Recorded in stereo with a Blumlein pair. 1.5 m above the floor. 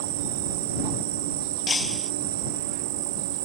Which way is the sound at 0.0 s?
50° right.